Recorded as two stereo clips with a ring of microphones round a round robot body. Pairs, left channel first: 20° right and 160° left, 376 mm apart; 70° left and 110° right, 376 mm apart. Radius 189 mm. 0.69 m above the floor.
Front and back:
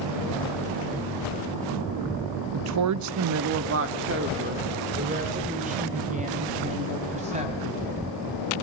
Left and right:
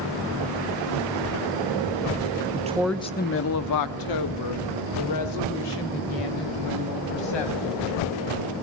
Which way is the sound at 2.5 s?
165° right.